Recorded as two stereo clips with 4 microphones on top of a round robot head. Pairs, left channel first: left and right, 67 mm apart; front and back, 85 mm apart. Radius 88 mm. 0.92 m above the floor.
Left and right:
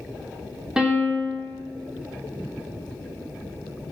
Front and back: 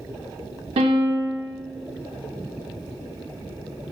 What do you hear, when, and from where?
0.8 s a piano: 165° right, 0.8 m